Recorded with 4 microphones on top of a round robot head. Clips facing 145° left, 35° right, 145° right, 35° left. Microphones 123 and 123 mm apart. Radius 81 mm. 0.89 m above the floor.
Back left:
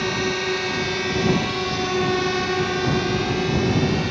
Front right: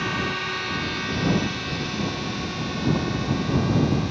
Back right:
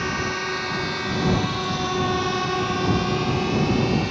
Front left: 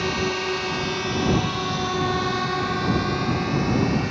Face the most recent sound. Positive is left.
turn(degrees=150)